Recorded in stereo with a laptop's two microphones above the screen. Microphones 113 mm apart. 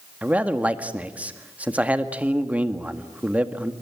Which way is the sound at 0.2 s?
15° right (ahead or behind).